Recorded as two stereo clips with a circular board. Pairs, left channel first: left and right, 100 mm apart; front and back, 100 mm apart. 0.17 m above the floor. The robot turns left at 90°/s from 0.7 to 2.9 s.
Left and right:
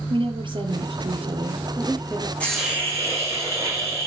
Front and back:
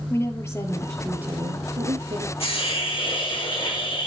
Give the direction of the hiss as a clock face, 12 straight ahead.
12 o'clock.